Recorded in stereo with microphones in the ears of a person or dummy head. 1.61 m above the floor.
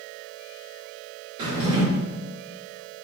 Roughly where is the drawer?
Right.